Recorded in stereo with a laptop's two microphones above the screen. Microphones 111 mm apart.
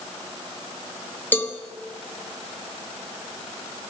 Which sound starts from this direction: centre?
A cowbell, at 1.3 s.